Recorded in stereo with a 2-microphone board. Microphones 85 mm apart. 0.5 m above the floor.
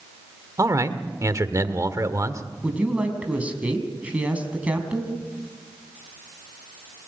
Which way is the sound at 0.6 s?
40° right (ahead or behind).